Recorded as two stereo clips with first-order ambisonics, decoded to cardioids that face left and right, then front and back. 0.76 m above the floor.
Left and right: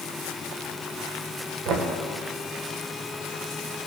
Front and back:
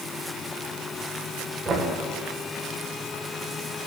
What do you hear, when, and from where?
1.6 s knocking: 110° right, 2.0 m